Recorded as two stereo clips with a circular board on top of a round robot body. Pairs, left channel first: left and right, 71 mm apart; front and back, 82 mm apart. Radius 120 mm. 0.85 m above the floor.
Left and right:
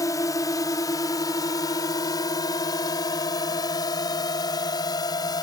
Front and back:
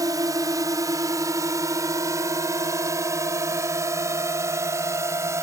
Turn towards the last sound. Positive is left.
turn(degrees=125)